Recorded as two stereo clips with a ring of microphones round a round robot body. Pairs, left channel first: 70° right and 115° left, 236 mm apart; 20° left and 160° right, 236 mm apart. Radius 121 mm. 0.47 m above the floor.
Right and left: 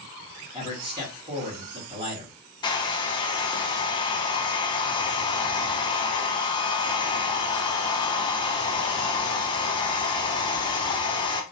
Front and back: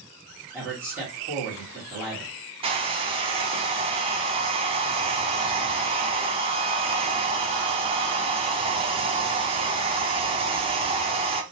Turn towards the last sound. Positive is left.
turn(degrees=-120)